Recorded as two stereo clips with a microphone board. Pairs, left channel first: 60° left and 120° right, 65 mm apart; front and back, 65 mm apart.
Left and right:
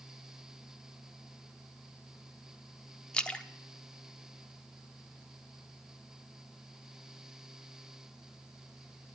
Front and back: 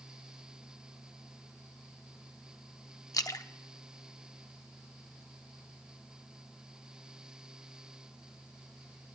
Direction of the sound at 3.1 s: 15° right.